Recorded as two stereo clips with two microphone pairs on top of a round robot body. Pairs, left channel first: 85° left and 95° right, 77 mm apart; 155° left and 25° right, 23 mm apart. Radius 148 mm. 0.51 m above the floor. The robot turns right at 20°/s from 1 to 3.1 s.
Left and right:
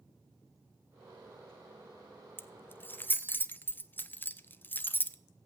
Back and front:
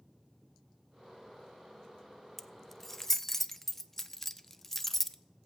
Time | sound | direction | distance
2.4 | keys jangling | 110° left | 0.7 m